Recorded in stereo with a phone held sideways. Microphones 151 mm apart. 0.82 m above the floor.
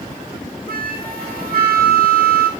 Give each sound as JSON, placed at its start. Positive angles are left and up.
{"t": 0.7, "sound": "a flute", "side_deg": -80, "distance_m": 0.8}